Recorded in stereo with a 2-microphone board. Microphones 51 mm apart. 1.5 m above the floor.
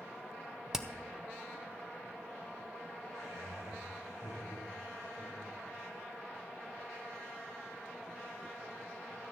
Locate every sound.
0.7 s hammering: 10° right (ahead or behind), 0.8 m
3.1 s laughter: 90° right, 8 m